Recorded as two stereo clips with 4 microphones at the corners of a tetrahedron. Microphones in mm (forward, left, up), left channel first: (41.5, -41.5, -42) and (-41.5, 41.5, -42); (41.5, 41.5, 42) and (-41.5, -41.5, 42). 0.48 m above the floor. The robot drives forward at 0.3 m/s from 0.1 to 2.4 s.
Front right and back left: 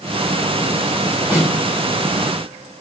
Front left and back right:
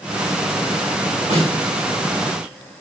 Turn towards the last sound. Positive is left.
turn(degrees=-155)